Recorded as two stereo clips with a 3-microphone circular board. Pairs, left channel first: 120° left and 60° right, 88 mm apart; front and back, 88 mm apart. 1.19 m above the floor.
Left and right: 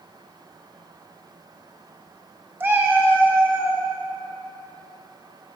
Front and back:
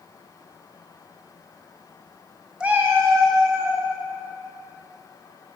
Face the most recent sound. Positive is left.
turn(degrees=-130)